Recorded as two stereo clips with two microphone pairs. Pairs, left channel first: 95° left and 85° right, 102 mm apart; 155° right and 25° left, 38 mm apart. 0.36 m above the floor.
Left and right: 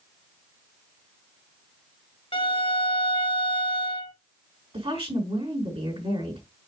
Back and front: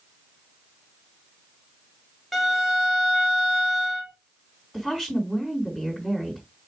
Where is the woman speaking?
80° right, 4 m.